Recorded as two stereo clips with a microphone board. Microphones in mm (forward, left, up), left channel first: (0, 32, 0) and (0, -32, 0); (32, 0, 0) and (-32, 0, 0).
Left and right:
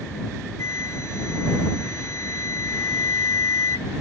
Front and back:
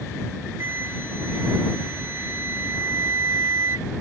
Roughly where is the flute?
Behind left.